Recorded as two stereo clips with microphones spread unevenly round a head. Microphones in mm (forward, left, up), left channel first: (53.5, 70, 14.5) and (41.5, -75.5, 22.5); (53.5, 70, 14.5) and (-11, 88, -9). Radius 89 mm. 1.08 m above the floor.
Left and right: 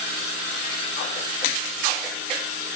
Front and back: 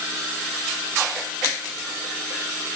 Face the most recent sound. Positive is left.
No sound to turn to.